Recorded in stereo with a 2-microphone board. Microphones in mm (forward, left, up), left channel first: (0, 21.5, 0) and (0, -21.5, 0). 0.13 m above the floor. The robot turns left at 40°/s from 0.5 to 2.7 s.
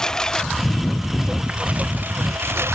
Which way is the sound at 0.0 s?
15° left.